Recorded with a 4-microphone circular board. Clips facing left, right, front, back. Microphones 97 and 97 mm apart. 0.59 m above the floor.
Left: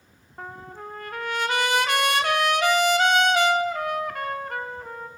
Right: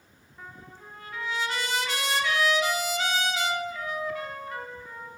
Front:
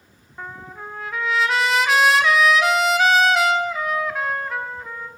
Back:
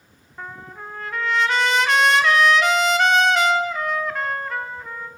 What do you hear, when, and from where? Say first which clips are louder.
0.4 s a trumpet: left 8 dB, front 1 dB; 85° left, 0.9 m